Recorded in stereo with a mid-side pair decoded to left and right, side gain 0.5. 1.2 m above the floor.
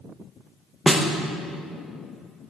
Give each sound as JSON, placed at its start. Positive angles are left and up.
{"t": 0.9, "sound": "a snare drum", "azimuth_deg": -5, "distance_m": 0.8}